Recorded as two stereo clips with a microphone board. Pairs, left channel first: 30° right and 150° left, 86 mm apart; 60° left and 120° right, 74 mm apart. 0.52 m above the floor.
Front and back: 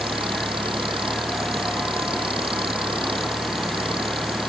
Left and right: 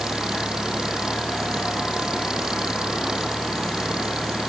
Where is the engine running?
160° left.